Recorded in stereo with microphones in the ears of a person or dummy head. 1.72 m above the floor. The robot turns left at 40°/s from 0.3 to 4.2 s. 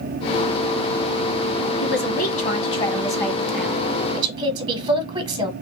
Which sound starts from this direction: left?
A man speaking, at 1.8 s.